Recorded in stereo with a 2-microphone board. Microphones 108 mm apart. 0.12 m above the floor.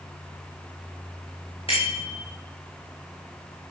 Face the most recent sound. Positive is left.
turn(degrees=55)  # may be behind; listen again after turning